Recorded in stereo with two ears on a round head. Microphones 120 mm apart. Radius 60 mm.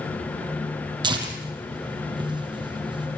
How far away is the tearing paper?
About 4.5 m.